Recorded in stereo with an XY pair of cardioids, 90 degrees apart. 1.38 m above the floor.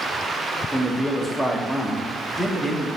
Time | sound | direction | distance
0.7 | a man speaking | 15° left | 0.9 m